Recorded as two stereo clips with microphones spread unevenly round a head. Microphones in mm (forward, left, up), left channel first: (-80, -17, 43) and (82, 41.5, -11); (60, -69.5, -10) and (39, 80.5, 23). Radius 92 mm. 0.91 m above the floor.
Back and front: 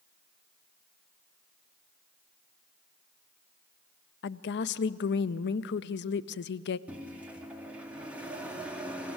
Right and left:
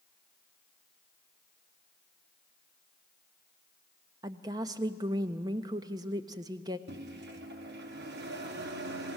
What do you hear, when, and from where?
4.2 s a woman speaking: 170° left, 0.5 m
6.9 s a microwave: 95° left, 1.7 m